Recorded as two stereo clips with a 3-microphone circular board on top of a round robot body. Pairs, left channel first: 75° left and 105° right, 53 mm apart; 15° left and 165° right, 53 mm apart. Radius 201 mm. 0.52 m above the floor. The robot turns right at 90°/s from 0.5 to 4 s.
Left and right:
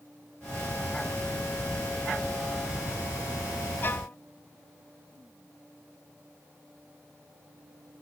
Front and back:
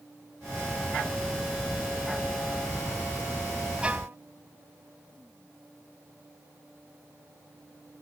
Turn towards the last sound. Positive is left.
turn(degrees=140)